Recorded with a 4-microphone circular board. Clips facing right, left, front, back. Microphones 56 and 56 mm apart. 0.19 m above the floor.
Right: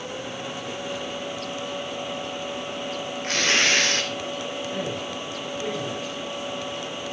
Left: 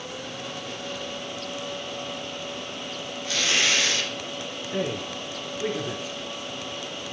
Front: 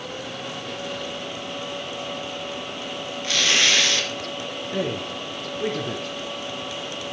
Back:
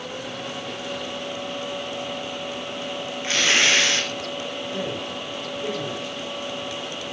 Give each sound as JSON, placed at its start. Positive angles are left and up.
{"t": 3.2, "sound": "tearing paper", "azimuth_deg": -120, "distance_m": 3.0}
{"t": 4.7, "sound": "a man speaking", "azimuth_deg": 30, "distance_m": 2.5}